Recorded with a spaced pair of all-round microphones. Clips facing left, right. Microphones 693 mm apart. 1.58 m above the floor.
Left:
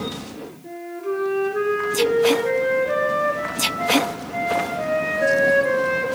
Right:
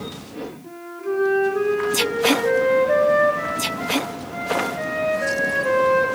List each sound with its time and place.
0.6 s a flute: 55° left (ahead or behind), 1.9 m